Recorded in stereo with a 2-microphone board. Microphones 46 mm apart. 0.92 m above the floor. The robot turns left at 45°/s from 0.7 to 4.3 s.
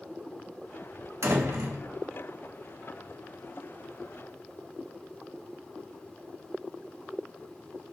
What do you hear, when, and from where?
1.2 s a door slam: 65° right (ahead or behind), 1.7 m; by 1.8 s 80° right, 1.7 m